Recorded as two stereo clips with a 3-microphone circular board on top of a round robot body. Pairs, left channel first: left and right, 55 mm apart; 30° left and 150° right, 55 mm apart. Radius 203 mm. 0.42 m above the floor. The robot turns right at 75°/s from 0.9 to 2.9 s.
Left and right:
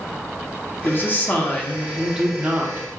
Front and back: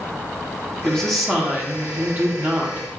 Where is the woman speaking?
100° left, 1.1 m; by 2.9 s 110° right, 1.1 m.